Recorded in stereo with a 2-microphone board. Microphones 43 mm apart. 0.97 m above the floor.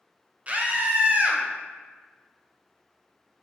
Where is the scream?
30° right (ahead or behind), 0.6 m.